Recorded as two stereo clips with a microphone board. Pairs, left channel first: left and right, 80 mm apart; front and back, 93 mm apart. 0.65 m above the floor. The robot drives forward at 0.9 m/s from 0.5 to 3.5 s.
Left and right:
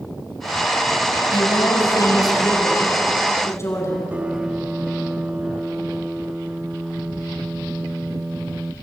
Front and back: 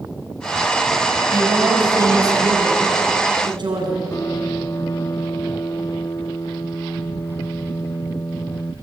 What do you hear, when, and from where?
1.3 s a woman speaking: 125° left, 3.5 m; by 4.0 s 145° left, 5 m
4.1 s a piano: 25° right, 0.7 m